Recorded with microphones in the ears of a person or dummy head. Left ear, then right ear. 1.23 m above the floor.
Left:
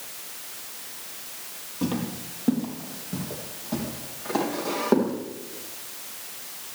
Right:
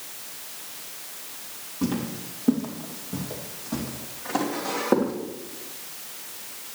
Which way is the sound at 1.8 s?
30° left (ahead or behind).